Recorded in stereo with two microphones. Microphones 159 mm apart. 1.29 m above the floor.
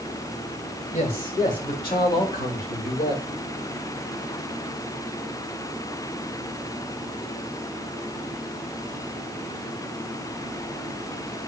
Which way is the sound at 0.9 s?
60° left (ahead or behind).